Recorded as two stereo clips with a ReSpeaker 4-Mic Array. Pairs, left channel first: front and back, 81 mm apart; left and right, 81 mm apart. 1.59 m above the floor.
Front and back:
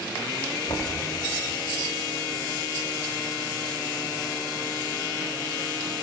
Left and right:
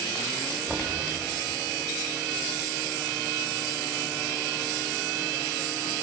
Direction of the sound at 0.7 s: Straight ahead.